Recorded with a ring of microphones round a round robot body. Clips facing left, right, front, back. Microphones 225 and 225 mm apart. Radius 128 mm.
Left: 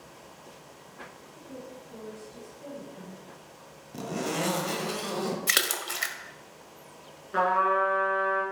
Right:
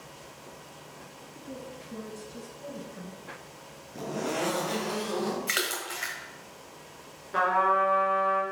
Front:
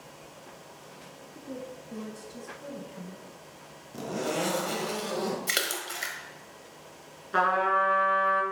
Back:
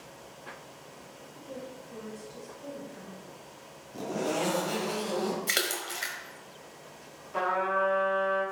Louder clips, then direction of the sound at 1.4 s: Right 2 dB, front 3 dB; 35° right.